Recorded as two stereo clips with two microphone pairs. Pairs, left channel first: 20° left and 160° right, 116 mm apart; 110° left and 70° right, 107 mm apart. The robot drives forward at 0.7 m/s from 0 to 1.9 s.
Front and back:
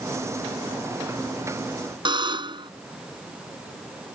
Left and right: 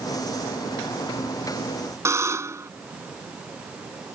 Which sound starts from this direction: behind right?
A buzzer, at 2.0 s.